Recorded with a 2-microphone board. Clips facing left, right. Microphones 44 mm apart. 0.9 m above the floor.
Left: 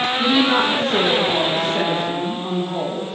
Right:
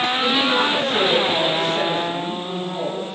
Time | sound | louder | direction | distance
0.2 | a woman speaking | left 4 dB | 50° left (ahead or behind) | 0.7 m